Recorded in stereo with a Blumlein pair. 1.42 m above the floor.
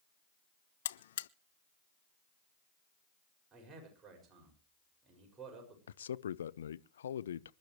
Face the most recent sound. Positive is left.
turn(degrees=65)